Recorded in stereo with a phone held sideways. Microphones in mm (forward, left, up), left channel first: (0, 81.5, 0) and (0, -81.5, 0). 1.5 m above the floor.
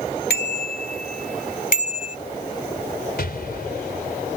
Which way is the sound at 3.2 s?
70° left (ahead or behind).